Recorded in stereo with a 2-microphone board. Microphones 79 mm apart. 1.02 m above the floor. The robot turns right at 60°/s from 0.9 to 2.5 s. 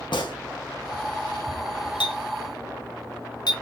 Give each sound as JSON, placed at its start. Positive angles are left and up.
{"t": 0.1, "sound": "a gunshot", "side_deg": 80, "distance_m": 0.7}
{"t": 2.0, "sound": "a clink", "side_deg": 85, "distance_m": 0.6}